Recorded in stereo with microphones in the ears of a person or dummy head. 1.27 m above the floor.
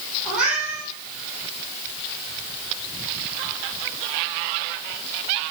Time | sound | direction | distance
0.2 | a cat meowing | centre (ahead or behind) | 8 m